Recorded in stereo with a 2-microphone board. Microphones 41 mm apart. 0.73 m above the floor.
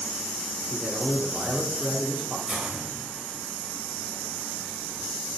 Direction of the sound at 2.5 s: 30° right (ahead or behind).